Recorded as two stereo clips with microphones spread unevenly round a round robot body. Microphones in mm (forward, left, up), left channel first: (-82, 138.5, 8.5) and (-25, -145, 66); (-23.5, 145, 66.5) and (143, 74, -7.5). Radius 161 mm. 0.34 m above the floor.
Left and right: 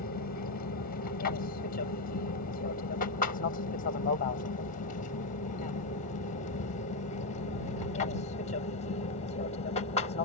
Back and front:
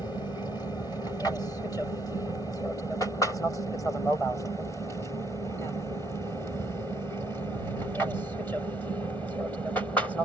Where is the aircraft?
75° left; by 10.3 s 55° left.